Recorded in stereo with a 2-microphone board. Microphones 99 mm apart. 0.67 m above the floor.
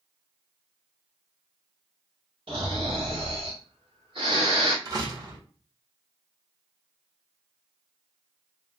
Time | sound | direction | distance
2.5 | snoring | 60° right (ahead or behind) | 1.8 m
4.8 | a door slam | 45° right (ahead or behind) | 1.4 m